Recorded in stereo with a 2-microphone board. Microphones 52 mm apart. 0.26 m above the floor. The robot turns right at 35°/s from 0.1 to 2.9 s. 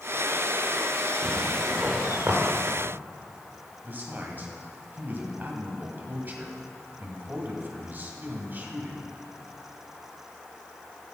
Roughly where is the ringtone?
I don't hear a ringtone.